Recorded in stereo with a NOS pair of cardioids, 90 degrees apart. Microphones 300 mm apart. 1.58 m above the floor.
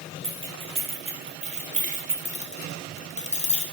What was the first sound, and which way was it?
Keys jangling, 20° right.